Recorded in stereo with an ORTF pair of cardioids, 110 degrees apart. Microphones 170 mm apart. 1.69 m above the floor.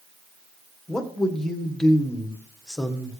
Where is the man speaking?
5° left, 1.6 m.